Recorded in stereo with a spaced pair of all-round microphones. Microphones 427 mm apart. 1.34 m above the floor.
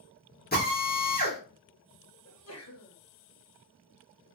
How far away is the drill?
About 1.4 m.